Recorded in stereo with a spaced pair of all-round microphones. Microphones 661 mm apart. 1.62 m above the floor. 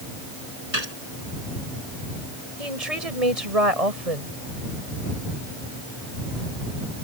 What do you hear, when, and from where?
0.7 s a gunshot: 75° right (ahead or behind)
2.6 s a woman speaking: 65° right (ahead or behind)